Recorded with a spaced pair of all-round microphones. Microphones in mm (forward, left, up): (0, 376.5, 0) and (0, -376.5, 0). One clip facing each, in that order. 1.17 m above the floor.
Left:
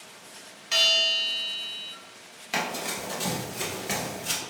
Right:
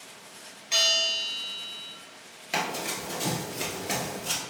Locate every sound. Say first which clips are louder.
0.7 s a bell: left 1 dB; 45° left (ahead or behind), 0.9 m
2.5 s running footsteps: even; centre (ahead or behind), 1.3 m; by 4.4 s 40° left (ahead or behind), 1.5 m